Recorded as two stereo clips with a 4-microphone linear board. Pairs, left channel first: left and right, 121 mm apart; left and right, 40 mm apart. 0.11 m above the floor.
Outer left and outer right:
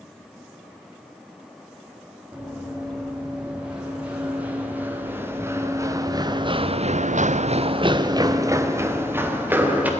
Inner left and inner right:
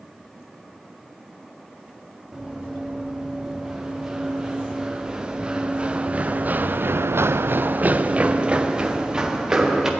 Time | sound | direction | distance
2.3 | running footsteps | 5° right (ahead or behind) | 4.5 m